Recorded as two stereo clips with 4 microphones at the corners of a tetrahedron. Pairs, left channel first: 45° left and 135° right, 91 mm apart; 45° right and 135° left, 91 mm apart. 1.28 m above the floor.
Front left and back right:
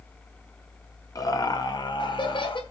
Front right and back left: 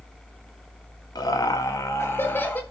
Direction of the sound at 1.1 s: Straight ahead.